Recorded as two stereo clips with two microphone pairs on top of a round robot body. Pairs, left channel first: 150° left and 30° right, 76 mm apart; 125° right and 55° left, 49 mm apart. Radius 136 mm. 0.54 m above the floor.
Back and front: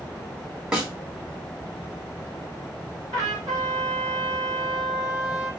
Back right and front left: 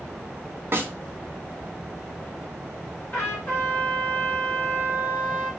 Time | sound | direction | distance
0.7 | a snare drum | 45° left | 1.8 m
3.1 | a trumpet | 75° right | 2.5 m